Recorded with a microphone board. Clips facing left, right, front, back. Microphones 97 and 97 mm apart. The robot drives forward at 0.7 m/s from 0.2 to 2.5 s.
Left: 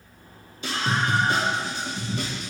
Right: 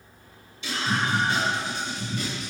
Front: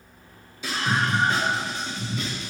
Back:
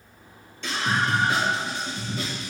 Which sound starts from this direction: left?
A scream, at 0.6 s.